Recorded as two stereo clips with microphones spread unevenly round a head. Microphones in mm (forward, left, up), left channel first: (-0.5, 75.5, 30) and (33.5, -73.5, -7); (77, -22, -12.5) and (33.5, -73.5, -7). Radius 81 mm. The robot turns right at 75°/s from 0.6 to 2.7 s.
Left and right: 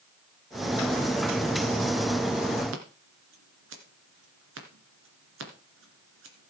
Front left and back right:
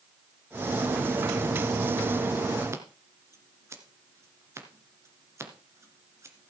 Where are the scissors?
85° right, 2 m.